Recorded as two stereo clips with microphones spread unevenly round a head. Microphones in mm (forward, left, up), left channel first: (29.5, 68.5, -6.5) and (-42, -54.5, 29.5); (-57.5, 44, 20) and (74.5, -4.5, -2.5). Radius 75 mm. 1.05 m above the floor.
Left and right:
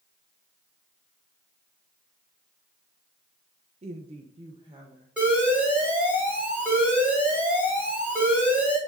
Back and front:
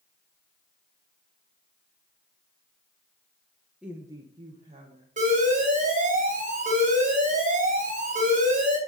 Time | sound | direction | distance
3.8 | a woman speaking | 85° right | 0.7 m
5.2 | an alarm | 30° right | 3 m